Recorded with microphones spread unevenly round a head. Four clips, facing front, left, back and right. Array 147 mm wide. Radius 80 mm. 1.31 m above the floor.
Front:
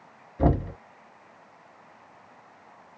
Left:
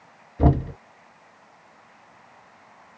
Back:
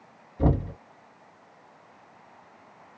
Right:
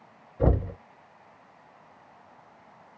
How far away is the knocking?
About 2 m.